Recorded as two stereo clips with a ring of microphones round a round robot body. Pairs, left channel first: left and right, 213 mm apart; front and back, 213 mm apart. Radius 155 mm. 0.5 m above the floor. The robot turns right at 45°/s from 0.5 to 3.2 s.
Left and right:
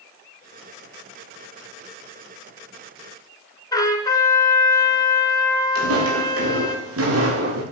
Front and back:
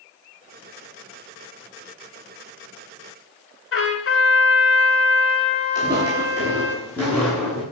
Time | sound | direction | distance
3.7 | a trumpet | 15° left | 3.5 m
5.8 | footsteps | 80° right | 7 m